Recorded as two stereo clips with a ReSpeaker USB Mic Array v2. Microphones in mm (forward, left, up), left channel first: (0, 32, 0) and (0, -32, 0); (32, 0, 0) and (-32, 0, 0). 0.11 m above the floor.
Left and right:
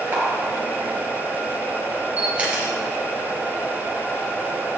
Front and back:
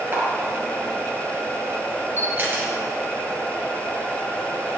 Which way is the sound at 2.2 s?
150° right.